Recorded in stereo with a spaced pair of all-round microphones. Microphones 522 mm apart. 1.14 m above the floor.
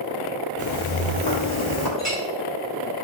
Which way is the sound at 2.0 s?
Centre (ahead or behind).